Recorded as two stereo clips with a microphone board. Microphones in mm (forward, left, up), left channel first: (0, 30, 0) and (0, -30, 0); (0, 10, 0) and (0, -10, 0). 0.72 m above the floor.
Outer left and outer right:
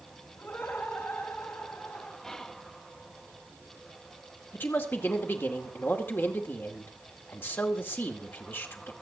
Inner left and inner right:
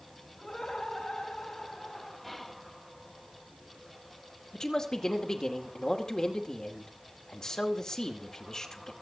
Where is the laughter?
40° left (ahead or behind), 3.5 m.